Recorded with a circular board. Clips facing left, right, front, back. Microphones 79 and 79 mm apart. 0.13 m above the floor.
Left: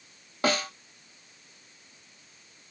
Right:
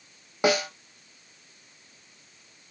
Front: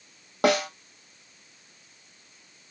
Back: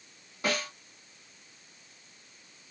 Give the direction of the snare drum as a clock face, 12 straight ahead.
1 o'clock.